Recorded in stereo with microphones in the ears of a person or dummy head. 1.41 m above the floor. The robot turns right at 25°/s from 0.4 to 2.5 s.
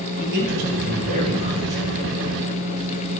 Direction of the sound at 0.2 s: 55° right.